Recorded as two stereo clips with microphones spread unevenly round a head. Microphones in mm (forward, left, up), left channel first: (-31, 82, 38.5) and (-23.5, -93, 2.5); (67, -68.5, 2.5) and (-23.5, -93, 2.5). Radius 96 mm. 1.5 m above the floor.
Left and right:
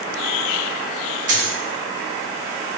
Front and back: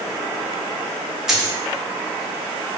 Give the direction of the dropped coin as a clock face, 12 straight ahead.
3 o'clock.